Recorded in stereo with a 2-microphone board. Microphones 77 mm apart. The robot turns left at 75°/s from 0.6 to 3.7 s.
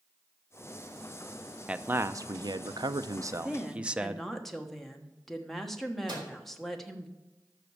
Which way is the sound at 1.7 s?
10° right.